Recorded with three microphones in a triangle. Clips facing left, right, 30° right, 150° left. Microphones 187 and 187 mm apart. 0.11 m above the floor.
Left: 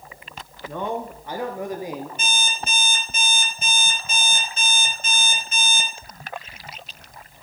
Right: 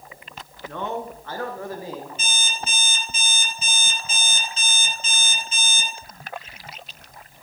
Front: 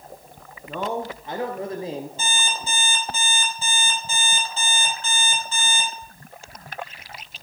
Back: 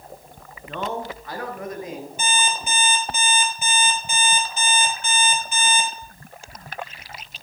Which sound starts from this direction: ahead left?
A man speaking, at 0.7 s.